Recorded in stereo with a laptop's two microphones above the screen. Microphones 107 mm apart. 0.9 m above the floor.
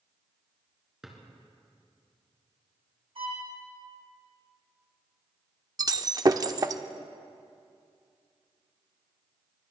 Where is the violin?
55° right (ahead or behind), 2.5 m.